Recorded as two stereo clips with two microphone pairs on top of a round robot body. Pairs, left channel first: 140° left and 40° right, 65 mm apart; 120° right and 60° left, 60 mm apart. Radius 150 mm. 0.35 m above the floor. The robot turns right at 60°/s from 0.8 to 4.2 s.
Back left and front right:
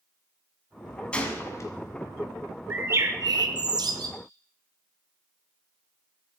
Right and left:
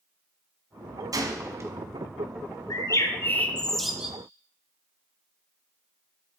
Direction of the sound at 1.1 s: 70° left.